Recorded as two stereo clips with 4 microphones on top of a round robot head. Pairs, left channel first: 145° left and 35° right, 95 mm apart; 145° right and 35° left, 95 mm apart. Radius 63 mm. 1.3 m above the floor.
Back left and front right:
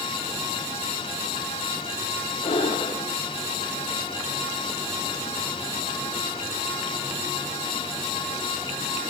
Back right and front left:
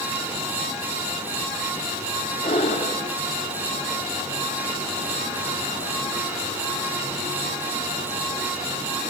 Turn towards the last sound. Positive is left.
turn(degrees=-175)